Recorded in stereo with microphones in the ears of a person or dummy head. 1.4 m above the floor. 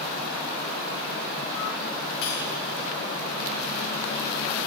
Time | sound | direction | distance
2.2 | cutlery clinking | 65° left (ahead or behind) | 5 m